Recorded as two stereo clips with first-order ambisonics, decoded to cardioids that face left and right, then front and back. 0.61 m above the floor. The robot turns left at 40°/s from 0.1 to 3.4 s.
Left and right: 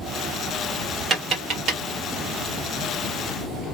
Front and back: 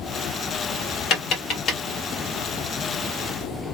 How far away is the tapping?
About 1.2 m.